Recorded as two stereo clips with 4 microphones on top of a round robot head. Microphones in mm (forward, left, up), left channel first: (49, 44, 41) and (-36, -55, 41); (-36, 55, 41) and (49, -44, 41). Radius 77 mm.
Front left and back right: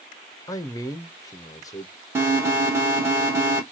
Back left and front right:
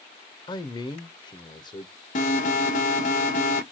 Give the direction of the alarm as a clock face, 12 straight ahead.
7 o'clock.